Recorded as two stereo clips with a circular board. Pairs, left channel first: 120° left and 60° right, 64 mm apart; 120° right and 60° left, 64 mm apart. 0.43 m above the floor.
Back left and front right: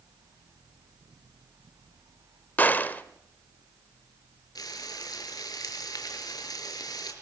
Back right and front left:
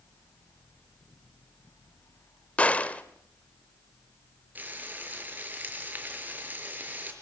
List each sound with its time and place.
2.6 s a gunshot: 175° left, 1.4 m
4.5 s frying: 125° left, 5 m